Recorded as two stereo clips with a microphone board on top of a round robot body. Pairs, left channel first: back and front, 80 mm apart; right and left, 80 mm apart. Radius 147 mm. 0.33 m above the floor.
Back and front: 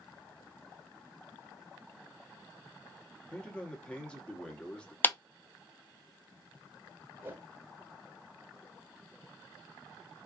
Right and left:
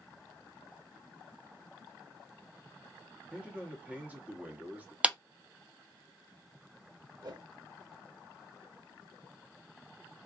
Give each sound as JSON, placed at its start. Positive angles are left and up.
{"t": 3.3, "sound": "a man speaking", "azimuth_deg": 120, "distance_m": 1.1}
{"t": 5.0, "sound": "a clap", "azimuth_deg": 150, "distance_m": 0.8}
{"t": 7.2, "sound": "a whoosh", "azimuth_deg": 65, "distance_m": 1.1}